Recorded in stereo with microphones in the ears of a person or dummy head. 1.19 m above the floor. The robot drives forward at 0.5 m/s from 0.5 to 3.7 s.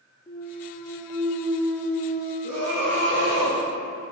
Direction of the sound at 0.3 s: 15° left (ahead or behind).